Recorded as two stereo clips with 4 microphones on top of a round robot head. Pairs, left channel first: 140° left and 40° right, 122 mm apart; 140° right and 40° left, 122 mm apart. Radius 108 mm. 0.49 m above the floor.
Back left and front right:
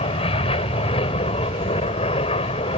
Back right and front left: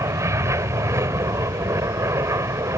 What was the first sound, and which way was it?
An aircraft, 105° left.